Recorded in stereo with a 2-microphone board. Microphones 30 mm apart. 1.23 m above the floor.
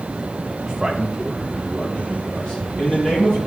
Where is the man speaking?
25° right (ahead or behind), 0.6 m; by 3.4 s 35° left (ahead or behind), 1.8 m.